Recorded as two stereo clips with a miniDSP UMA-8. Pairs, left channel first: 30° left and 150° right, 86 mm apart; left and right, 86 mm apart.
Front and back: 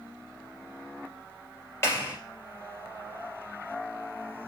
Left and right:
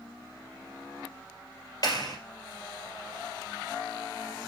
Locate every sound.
1.8 s a clap: 80° left, 2 m